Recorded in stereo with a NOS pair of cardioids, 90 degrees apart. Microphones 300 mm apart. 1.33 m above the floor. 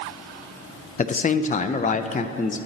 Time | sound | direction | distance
1.0 | a man speaking | 25° left | 0.7 m